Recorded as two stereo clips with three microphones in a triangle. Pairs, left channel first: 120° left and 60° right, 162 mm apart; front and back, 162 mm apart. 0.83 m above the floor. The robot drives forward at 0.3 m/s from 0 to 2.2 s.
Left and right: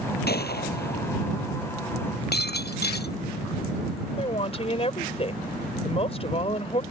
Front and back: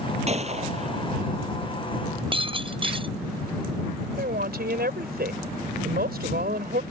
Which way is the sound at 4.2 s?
170° left.